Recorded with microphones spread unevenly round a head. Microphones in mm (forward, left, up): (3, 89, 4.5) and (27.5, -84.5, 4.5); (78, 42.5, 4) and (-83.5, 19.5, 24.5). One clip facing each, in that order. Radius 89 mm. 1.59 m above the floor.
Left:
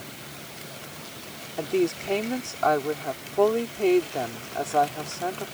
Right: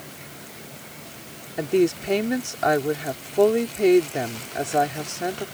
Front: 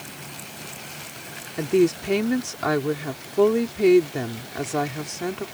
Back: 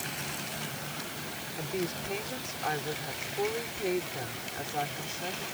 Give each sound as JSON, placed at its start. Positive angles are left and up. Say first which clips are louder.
{"t": 1.6, "sound": "a woman speaking", "louder": "right 4 dB, front 15 dB", "azimuth_deg": -10}